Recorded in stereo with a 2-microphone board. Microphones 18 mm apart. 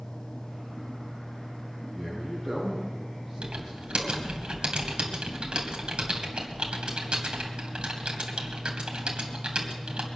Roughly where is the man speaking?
Centre.